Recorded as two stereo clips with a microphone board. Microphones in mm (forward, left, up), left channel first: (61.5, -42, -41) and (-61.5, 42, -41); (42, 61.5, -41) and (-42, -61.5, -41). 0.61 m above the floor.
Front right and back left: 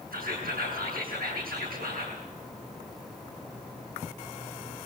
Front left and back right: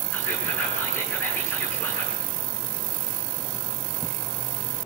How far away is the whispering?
About 7.5 m.